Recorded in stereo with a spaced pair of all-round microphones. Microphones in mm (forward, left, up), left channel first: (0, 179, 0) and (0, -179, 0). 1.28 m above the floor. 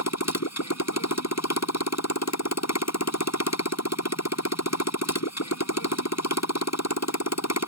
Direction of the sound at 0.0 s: 45° left (ahead or behind).